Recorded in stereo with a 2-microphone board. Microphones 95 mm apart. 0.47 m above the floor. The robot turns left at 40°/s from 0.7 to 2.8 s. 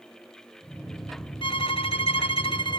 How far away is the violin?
About 0.8 m.